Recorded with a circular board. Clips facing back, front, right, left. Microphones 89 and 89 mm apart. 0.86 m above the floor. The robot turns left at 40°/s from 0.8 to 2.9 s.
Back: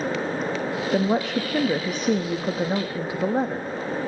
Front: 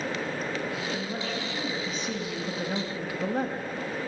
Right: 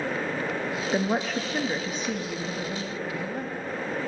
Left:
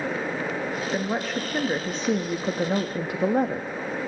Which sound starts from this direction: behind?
A woman speaking, at 0.9 s.